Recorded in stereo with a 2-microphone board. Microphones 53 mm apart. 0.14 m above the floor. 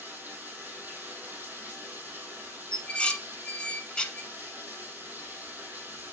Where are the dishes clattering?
15° left (ahead or behind), 0.8 m.